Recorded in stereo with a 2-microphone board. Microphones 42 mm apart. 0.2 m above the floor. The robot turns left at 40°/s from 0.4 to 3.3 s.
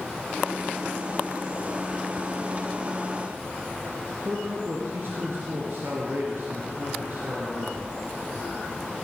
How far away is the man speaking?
About 2.5 m.